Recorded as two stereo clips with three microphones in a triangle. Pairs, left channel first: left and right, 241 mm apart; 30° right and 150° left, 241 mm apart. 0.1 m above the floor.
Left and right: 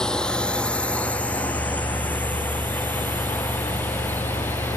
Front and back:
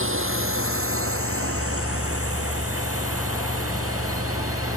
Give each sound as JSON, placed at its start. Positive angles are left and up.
{"t": 0.0, "sound": "a drone", "azimuth_deg": 175}